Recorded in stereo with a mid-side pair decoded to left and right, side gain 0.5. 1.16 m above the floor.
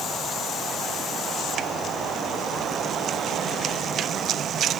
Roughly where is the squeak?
I don't hear a squeak.